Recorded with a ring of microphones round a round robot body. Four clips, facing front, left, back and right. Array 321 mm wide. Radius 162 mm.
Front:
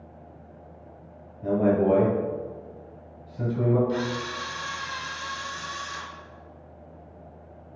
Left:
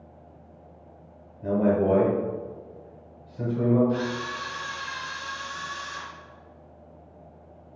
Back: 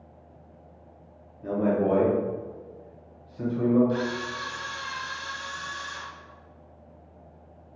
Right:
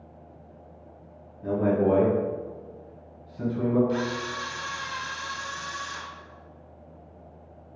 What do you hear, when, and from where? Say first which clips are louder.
1.4 s a man speaking: left 1 dB, front 3 dB; 40° left, 1.5 m
3.9 s a camera shutter: even, even; 75° right, 1.0 m